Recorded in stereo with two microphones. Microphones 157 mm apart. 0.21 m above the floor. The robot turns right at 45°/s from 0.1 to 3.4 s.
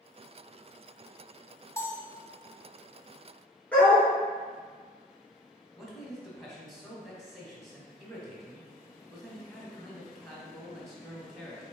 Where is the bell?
20° left (ahead or behind), 0.8 m; by 2.1 s 10° left (ahead or behind), 0.8 m.